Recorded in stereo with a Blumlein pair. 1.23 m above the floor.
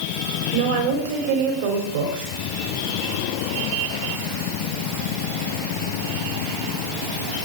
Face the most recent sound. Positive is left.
turn(degrees=-50)